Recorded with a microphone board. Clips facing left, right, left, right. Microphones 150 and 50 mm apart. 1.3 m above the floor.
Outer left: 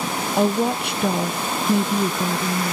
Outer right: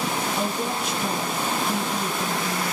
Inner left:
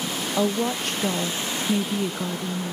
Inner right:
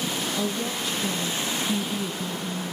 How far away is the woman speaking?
About 0.8 m.